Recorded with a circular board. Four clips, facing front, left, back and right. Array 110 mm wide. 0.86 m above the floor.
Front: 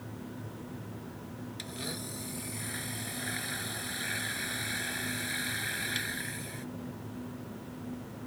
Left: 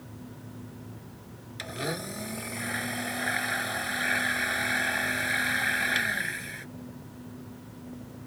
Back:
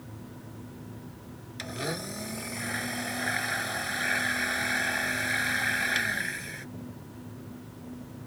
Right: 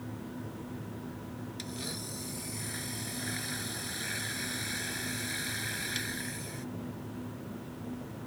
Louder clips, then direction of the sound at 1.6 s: Left 6 dB, back 10 dB; 130° left.